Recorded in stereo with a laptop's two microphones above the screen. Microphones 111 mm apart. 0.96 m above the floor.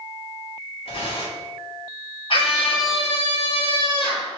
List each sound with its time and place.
0.8 s tearing paper: 75° left (ahead or behind), 3 m
2.3 s a scream: 55° left (ahead or behind), 2.5 m